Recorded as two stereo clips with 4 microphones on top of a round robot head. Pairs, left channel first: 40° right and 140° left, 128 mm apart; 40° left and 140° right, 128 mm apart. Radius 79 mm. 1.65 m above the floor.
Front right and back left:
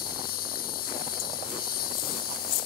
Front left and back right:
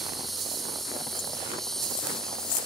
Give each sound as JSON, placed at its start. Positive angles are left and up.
{"t": 0.0, "sound": "a lawn mower", "azimuth_deg": -50}